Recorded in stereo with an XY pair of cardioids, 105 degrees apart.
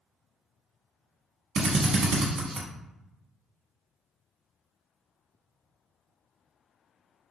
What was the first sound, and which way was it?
A drill, 70° right.